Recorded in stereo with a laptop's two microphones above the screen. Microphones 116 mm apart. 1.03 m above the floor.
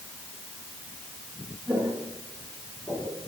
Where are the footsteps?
10° left (ahead or behind), 3.5 m; by 3.2 s 25° left (ahead or behind), 3.5 m.